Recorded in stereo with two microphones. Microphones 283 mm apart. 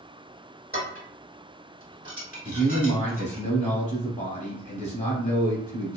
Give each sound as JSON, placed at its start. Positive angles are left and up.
{"t": 0.7, "sound": "dishes clattering", "side_deg": 30, "distance_m": 1.7}
{"t": 2.5, "sound": "a man speaking", "side_deg": 25, "distance_m": 1.0}